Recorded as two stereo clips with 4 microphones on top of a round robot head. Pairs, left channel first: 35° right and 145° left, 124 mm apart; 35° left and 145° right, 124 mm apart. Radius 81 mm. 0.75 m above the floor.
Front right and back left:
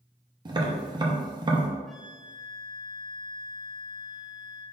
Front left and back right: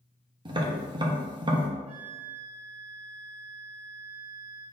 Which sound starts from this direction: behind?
Tapping, at 0.5 s.